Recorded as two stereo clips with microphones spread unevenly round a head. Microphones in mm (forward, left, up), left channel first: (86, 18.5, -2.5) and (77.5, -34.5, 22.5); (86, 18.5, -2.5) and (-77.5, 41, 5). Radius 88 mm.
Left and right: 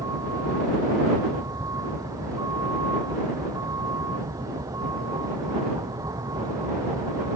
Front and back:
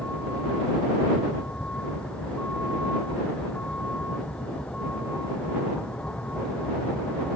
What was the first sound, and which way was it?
A vehicle, 95° right.